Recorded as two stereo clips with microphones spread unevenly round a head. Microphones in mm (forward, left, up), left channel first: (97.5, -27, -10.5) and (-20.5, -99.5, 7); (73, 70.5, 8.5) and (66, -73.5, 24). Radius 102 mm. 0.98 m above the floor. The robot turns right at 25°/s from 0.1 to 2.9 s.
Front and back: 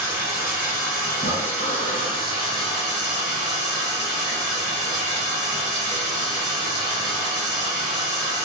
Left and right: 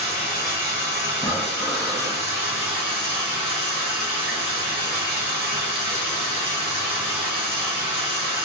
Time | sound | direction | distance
0.0 | running water | 175° left | 1.8 m
1.1 | breathing | 155° left | 0.5 m